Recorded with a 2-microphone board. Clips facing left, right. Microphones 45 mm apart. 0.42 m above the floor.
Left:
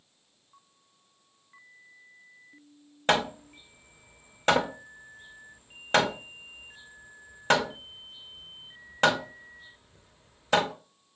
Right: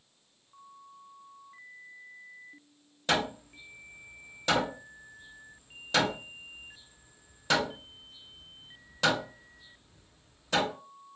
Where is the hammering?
50° left (ahead or behind), 0.6 m.